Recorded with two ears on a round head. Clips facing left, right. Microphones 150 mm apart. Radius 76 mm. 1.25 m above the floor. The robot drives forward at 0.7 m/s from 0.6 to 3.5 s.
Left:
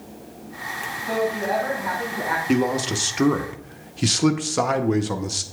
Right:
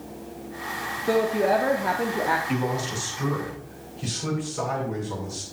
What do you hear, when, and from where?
1.1 s a woman speaking: 50° right (ahead or behind), 0.8 m; by 2.4 s 40° right (ahead or behind), 1.0 m
2.5 s a man speaking: 45° left (ahead or behind), 0.9 m; by 5.4 s 75° left (ahead or behind), 0.7 m